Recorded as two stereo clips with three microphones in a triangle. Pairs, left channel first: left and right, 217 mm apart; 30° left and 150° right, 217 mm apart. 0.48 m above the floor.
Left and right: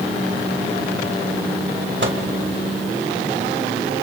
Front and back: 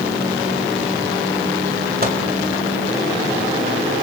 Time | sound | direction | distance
2.0 | a microwave | 110° right | 2.5 m